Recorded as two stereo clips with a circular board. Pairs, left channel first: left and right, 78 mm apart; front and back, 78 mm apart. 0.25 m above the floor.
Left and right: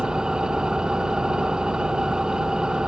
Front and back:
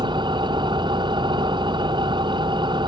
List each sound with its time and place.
0.0 s an engine running: 170° right